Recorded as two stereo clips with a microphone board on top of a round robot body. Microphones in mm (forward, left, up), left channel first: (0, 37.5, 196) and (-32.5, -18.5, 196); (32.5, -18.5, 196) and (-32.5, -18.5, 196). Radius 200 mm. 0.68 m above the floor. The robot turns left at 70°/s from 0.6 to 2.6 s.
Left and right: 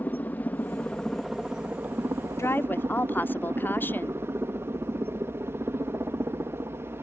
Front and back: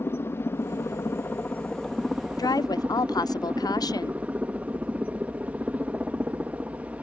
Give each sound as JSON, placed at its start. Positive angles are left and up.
{"t": 0.0, "sound": "a helicopter", "azimuth_deg": 15}
{"t": 2.4, "sound": "a woman speaking", "azimuth_deg": 15}